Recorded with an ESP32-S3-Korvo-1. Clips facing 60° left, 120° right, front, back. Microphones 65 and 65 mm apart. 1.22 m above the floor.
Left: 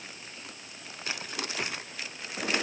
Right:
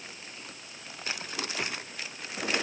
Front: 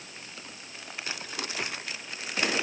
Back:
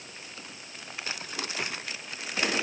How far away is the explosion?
No explosion in this recording.